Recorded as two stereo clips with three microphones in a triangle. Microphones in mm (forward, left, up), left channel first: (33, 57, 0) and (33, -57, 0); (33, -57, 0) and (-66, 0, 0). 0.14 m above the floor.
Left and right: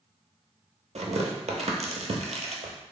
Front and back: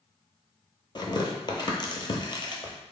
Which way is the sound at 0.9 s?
80° right.